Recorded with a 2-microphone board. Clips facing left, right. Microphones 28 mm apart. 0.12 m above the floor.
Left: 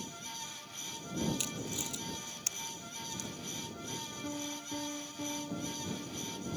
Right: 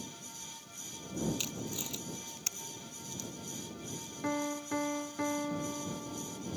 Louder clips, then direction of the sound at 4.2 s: Right 9 dB; 70° right (ahead or behind).